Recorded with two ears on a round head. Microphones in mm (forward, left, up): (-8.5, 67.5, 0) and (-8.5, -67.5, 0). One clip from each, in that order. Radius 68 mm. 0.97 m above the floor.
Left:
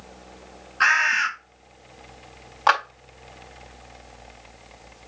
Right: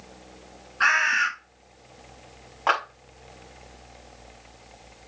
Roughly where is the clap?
Left.